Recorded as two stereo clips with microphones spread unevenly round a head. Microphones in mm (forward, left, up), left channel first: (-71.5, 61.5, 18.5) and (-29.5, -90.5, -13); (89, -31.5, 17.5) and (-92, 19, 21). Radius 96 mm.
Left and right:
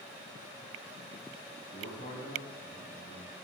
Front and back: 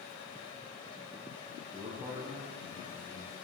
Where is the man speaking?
125° left, 6 m.